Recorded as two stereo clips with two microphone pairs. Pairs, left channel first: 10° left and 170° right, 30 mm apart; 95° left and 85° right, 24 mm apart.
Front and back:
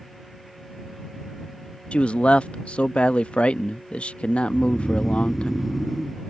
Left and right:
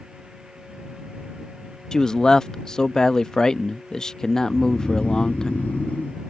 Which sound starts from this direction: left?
Snoring, at 4.5 s.